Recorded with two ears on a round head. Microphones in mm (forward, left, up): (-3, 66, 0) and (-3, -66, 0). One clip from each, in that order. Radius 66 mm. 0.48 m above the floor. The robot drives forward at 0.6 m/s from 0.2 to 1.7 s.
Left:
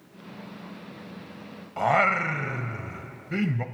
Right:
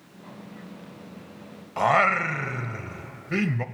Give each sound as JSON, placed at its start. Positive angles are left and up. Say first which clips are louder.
{"t": 1.8, "sound": "singing", "louder": "right 2 dB", "side_deg": -20, "distance_m": 0.6}